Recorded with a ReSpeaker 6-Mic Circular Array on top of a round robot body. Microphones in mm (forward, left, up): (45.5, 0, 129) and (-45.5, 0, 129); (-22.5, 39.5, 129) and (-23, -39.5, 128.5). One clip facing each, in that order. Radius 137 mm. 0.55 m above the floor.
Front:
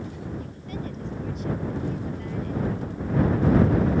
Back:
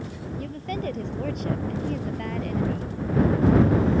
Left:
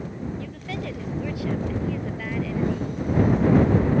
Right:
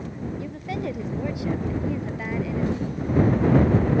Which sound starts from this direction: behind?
A woman speaking, at 0.4 s.